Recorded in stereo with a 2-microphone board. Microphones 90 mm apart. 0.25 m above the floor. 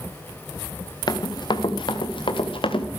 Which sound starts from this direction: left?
Running footsteps, at 1.1 s.